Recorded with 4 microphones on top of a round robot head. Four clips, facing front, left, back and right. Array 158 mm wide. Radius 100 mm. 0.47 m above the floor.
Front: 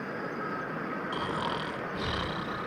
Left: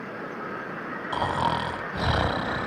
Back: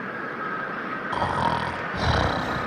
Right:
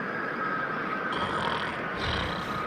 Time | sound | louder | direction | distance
1.1 | snoring | left 8 dB, back 11 dB | 145° left | ?